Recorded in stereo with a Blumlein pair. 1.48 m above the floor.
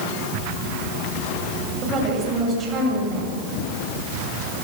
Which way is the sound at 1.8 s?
20° right.